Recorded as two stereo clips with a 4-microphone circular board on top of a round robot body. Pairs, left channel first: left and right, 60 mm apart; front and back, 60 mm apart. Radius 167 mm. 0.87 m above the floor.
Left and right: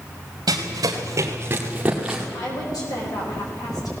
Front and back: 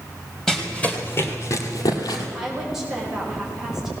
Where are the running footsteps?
85° right, 1.8 m; by 2.2 s 5° right, 2 m.